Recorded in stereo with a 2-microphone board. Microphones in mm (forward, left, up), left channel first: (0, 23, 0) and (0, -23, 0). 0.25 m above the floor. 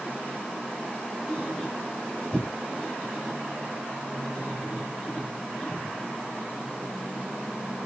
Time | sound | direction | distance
1.3 | a squeak | 30° left (ahead or behind) | 10 m